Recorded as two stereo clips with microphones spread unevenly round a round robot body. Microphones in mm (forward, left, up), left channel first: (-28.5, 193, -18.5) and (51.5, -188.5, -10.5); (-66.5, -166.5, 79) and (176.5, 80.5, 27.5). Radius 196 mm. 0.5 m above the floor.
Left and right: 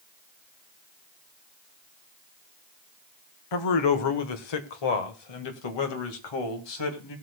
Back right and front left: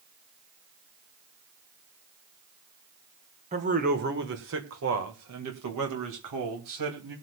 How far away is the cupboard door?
I don't hear a cupboard door.